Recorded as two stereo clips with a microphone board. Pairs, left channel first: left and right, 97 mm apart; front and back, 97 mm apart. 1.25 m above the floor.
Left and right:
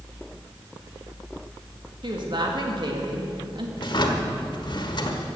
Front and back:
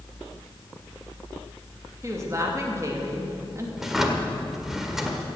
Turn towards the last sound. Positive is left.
turn(degrees=95)